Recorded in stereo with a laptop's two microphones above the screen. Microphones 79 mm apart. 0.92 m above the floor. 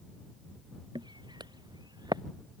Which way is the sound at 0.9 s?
70° right (ahead or behind).